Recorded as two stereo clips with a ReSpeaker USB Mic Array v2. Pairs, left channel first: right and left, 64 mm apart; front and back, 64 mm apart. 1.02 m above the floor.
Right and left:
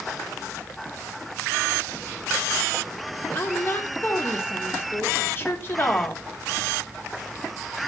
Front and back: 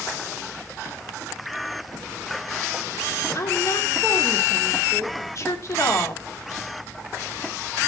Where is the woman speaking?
40° right, 3 m.